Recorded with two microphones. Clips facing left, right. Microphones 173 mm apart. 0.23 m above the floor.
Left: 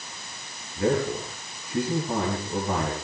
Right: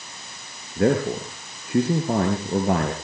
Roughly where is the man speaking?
Right.